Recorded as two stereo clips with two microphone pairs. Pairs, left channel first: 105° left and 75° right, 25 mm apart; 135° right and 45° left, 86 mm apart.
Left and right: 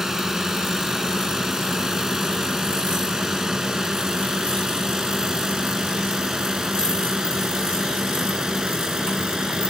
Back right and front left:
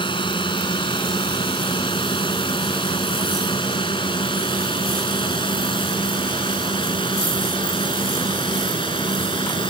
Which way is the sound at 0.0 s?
145° right.